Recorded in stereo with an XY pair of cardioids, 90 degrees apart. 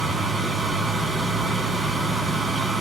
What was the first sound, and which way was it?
A fan, 40° right.